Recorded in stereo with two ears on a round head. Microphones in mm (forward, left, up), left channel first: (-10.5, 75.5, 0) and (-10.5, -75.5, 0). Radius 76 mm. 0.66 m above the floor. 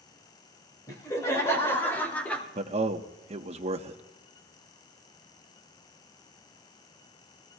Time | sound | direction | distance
0.9 | laughter | 20° left (ahead or behind) | 3.5 m
2.5 | a man speaking | 40° right (ahead or behind) | 0.9 m